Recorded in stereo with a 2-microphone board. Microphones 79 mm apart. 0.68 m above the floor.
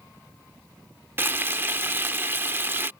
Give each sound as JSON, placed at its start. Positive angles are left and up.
{"t": 1.2, "sound": "frying", "side_deg": -25}